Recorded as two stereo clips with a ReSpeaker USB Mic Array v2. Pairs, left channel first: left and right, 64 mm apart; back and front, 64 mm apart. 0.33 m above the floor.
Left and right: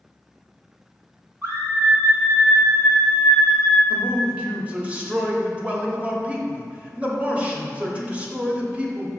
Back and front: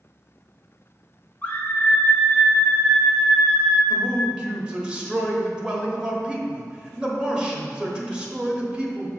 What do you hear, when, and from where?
1.4 s a scream: 130° right, 2 m; by 3.8 s 95° left, 1.5 m
3.9 s a man speaking: 55° right, 1.1 m